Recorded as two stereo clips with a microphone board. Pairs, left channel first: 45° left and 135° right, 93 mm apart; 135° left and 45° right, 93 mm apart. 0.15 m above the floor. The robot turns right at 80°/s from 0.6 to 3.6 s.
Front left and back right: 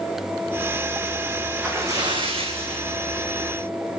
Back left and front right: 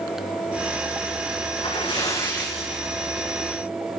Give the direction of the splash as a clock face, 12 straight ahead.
7 o'clock.